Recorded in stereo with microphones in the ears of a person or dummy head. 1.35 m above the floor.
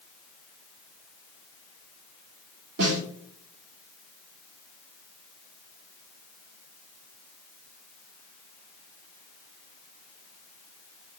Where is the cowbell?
I don't hear a cowbell.